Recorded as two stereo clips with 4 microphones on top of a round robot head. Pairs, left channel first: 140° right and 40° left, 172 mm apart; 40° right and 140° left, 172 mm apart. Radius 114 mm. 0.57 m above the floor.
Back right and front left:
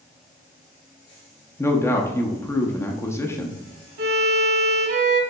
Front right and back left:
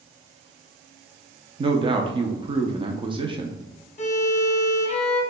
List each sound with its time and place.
1.6 s a man speaking: 160° left, 0.7 m
4.0 s a violin: 10° left, 1.1 m